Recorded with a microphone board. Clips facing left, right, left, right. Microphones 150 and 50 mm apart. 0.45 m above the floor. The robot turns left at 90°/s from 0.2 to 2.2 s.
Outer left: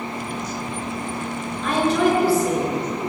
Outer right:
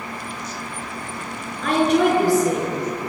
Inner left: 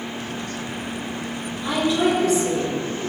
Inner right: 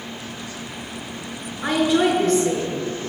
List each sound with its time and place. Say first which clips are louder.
1.6 s a woman speaking: outer right 2 dB, inner right 2 dB; 85° right, 5 m; by 2.8 s 135° right, 5 m